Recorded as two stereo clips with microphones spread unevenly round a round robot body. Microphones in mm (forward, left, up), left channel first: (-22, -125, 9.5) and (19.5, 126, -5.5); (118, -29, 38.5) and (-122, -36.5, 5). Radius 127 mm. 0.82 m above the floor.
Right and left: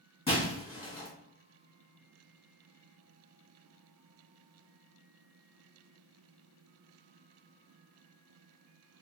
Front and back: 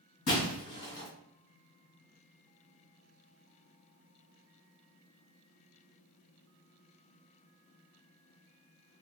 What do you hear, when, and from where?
0.3 s breaking glass: 30° right, 1.9 m